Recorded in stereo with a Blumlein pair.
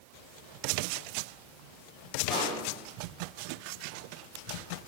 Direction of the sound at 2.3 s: 5° right.